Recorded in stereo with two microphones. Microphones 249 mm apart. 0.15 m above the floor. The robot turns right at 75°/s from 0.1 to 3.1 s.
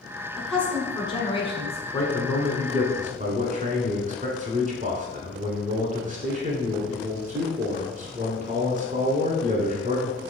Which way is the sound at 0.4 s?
5° right (ahead or behind).